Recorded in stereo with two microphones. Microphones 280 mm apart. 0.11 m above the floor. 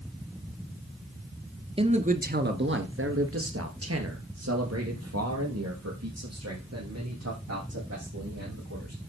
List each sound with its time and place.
1.8 s a man speaking: 20° right (ahead or behind), 1.3 m; by 9.0 s 60° right (ahead or behind), 6 m